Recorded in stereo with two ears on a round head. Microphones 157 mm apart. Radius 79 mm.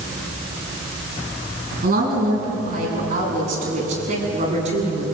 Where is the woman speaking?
50° right (ahead or behind), 9 m; by 5.0 s 40° right (ahead or behind), 8 m.